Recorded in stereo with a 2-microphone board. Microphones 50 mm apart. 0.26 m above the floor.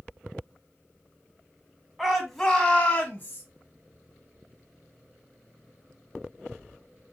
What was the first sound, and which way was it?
A shout, 10° right (ahead or behind).